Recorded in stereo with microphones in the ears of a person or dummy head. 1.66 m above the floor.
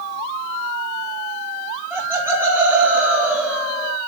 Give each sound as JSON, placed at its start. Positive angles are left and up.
{"t": 1.9, "sound": "laughter", "side_deg": -10, "distance_m": 4.5}